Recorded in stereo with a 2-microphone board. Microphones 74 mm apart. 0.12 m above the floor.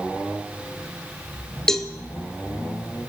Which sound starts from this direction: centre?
A cowbell, at 1.7 s.